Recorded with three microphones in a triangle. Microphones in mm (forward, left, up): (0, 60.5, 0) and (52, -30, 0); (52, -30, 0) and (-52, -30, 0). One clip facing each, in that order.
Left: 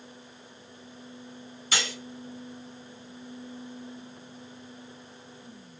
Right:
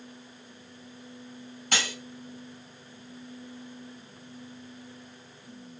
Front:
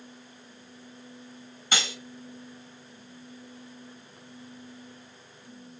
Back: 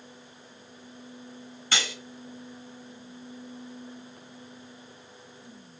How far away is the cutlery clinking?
About 1.4 m.